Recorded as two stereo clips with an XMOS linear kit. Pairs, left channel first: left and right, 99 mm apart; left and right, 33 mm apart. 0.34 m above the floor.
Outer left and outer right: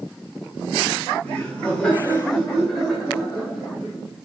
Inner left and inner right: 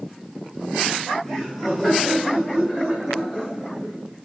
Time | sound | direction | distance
1.2 | laughter | 10° left (ahead or behind) | 1.0 m